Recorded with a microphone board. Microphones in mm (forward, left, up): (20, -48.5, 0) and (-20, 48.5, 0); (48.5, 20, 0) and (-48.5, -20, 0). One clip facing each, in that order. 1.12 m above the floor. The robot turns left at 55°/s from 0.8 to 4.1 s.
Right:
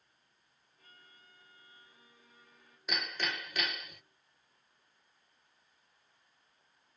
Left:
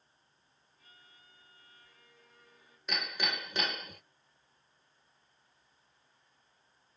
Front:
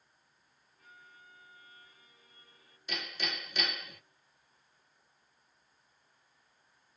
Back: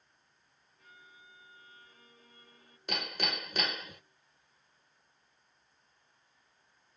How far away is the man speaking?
I don't hear a man speaking.